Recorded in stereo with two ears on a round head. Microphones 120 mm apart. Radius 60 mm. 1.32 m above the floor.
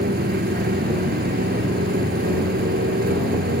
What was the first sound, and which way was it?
A motorcycle, 75° right (ahead or behind).